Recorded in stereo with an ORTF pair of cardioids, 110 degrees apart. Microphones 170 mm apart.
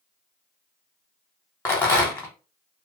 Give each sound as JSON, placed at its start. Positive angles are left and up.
{"t": 1.6, "sound": "a rattle", "azimuth_deg": 15, "distance_m": 0.9}